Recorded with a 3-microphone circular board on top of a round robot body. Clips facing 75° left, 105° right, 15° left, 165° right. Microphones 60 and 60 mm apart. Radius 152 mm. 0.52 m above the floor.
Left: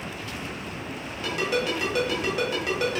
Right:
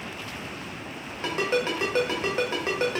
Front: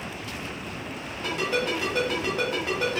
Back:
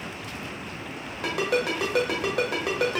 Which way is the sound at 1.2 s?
160° right.